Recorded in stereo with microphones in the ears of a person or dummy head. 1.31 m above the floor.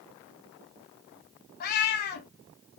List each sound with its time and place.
1.6 s a cat meowing: 45° left (ahead or behind), 0.7 m